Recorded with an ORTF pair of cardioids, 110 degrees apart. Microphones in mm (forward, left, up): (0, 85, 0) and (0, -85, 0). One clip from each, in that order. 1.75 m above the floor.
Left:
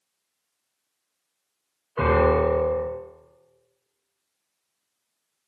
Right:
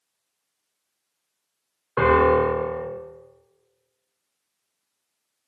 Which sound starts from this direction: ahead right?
A piano, at 2.0 s.